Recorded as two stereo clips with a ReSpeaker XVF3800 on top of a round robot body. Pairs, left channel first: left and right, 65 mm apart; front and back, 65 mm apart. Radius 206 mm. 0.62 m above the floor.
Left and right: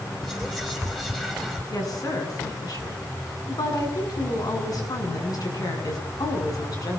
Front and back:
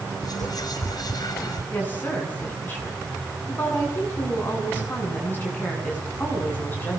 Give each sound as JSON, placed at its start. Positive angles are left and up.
{"t": 0.2, "sound": "whispering", "azimuth_deg": 5, "distance_m": 4.0}
{"t": 1.7, "sound": "a woman speaking", "azimuth_deg": 60, "distance_m": 9.5}